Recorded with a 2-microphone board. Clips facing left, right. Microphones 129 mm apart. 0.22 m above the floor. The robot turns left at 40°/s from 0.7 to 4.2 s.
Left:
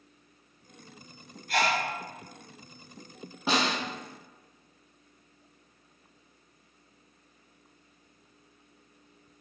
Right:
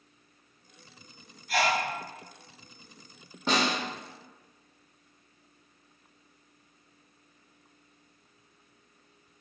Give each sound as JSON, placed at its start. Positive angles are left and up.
{"t": 1.5, "sound": "a sneeze", "side_deg": 0, "distance_m": 1.0}
{"t": 3.5, "sound": "a snare drum", "side_deg": 5, "distance_m": 1.0}